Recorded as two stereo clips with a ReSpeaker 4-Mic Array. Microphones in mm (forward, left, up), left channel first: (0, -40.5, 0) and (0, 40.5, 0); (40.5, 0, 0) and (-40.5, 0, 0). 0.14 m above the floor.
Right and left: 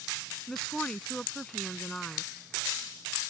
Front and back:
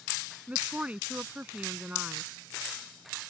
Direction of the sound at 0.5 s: 155° right.